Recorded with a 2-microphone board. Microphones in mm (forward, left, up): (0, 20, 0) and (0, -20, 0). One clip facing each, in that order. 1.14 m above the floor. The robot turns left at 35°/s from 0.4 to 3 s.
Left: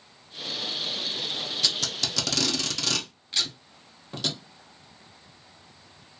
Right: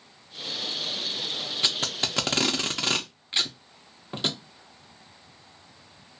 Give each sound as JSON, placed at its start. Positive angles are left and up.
{"t": 1.6, "sound": "tape being pulled", "side_deg": -30, "distance_m": 0.5}